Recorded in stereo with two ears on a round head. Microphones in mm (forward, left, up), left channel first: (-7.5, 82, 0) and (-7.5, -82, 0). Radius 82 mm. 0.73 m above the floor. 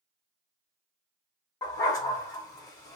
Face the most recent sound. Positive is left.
turn(degrees=20)  # may be behind; listen again after turning